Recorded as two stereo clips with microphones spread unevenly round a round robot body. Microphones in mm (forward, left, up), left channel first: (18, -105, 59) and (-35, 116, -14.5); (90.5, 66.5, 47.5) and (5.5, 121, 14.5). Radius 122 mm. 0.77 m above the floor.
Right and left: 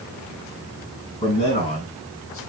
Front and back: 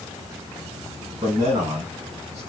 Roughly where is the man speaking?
Behind right.